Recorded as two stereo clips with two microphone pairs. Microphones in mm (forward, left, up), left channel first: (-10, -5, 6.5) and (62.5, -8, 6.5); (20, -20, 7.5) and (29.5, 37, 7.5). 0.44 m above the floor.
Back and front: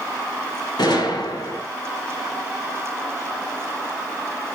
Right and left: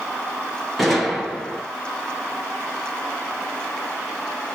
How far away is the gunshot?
About 2 m.